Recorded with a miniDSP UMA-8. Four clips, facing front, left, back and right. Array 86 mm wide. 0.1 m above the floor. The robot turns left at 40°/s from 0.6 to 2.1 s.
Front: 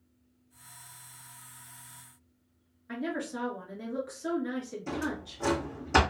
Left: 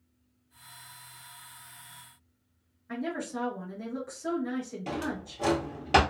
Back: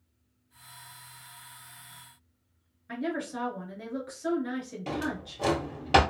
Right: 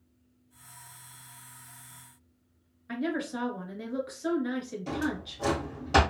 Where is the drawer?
150° left, 1.3 m.